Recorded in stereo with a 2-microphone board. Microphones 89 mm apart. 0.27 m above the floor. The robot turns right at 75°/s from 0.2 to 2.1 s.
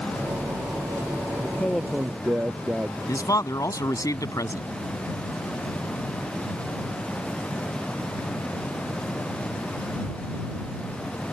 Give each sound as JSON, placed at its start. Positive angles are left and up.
{"t": 1.4, "sound": "a man speaking", "azimuth_deg": 150}
{"t": 3.1, "sound": "a man speaking", "side_deg": 40}